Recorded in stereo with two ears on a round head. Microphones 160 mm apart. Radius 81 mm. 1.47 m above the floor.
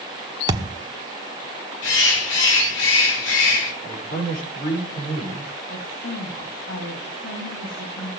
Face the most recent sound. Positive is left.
turn(degrees=80)